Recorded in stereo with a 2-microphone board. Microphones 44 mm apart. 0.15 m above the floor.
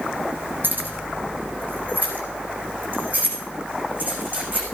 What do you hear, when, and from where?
0.6 s keys jangling: 50° right (ahead or behind), 5 m; by 4.7 s 35° right (ahead or behind), 7 m